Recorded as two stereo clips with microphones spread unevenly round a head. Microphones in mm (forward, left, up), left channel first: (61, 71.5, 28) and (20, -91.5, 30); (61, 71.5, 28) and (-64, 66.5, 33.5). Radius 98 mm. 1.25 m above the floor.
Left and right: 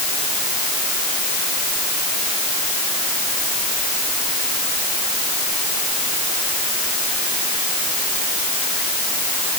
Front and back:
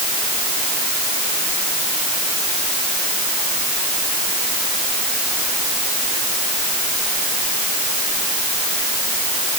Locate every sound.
Only background noise.